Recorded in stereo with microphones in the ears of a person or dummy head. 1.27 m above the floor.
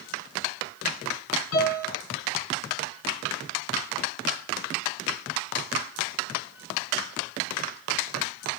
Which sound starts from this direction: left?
A piano, at 1.5 s.